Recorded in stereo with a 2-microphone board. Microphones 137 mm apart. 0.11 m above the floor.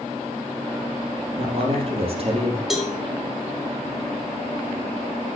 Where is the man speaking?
45° right (ahead or behind), 4 m.